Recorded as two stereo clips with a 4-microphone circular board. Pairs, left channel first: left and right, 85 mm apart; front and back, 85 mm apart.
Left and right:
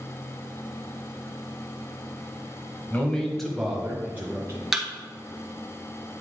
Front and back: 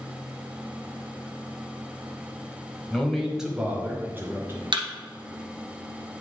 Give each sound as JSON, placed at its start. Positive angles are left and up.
{"t": 2.9, "sound": "a man speaking", "azimuth_deg": 70, "distance_m": 1.2}
{"t": 4.7, "sound": "a thud", "azimuth_deg": -175, "distance_m": 1.3}